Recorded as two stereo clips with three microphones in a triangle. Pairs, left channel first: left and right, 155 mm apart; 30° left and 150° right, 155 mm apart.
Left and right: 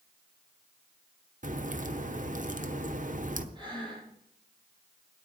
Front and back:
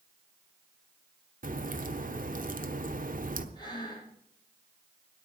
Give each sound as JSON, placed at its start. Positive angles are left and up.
{"t": 1.4, "sound": "a crack", "azimuth_deg": -125, "distance_m": 1.1}
{"t": 3.5, "sound": "breathing", "azimuth_deg": -30, "distance_m": 7.5}